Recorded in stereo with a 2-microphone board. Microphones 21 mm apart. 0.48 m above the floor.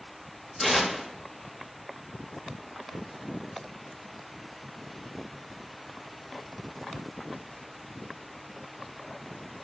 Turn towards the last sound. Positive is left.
turn(degrees=5)  # may be behind; listen again after turning